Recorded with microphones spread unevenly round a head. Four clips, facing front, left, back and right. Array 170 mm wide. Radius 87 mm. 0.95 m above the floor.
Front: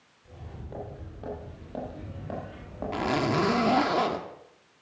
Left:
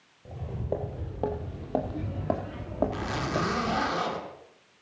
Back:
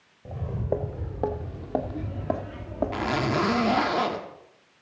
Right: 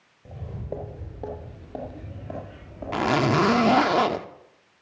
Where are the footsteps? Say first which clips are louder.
Left 2 dB, back 15 dB; 175° left, 1.8 m; by 3.9 s 115° left, 3 m.